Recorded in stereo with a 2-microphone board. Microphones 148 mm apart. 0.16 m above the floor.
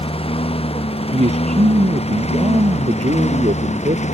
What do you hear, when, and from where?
0.0 s a lawn mower: 40° left (ahead or behind); by 4.2 s 50° left (ahead or behind)
1.1 s a man speaking: 50° right (ahead or behind)